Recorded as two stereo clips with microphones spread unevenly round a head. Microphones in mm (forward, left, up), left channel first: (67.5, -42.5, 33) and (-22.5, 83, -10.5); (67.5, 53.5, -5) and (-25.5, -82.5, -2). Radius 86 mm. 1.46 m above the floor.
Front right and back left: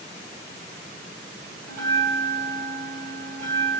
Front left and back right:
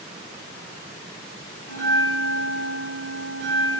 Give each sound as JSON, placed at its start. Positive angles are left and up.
{"t": 1.7, "sound": "a bell", "azimuth_deg": 115, "distance_m": 1.5}